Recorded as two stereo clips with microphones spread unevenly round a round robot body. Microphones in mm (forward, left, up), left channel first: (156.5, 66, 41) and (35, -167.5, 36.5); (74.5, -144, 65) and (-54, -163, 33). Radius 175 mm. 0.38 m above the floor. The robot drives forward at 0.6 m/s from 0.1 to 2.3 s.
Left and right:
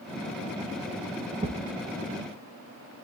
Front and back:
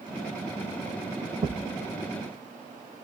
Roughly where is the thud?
Behind.